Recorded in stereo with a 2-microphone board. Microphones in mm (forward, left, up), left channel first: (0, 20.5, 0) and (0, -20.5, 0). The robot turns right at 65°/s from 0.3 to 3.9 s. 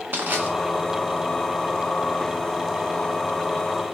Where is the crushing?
50° right (ahead or behind), 1.0 m; by 0.5 s 40° right (ahead or behind), 1.0 m.